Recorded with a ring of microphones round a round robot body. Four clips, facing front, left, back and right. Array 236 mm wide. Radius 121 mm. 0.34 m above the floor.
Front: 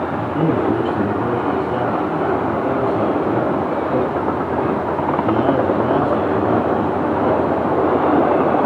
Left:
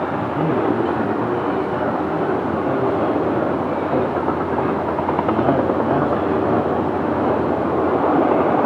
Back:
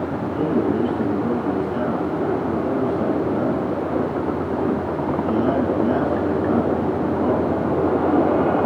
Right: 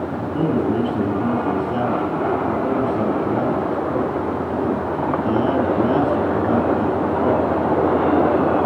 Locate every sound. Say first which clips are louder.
0.2 s a man speaking: right 1 dB, front 3 dB; 40° right, 5 m